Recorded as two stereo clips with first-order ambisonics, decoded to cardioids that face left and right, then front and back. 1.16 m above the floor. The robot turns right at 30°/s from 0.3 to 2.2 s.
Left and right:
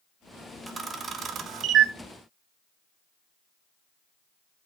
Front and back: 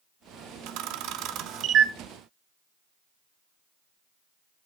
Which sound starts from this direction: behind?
A camera shutter, at 0.7 s.